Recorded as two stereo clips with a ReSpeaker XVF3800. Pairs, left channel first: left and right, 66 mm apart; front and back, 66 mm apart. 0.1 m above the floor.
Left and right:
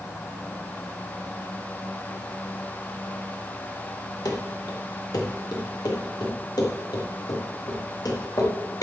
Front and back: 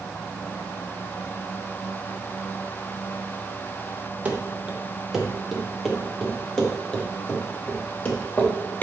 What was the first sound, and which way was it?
Running footsteps, 110° left.